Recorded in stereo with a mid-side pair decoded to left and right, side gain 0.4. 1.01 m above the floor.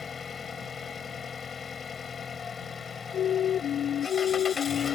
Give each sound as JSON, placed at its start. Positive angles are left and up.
{"t": 0.0, "sound": "an engine running", "azimuth_deg": 45}
{"t": 3.1, "sound": "a siren", "azimuth_deg": 70}